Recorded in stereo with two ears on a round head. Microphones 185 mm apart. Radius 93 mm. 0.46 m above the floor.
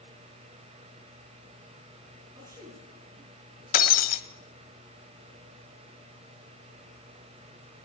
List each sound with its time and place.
2.4 s a man speaking: 15° right (ahead or behind), 6 m; by 3.6 s 10° right (ahead or behind), 6 m
3.7 s breaking glass: 40° left (ahead or behind), 1.3 m